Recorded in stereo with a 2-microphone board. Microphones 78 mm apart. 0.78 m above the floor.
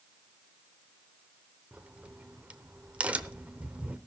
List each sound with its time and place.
1.7 s a crack: 15° right (ahead or behind), 0.8 m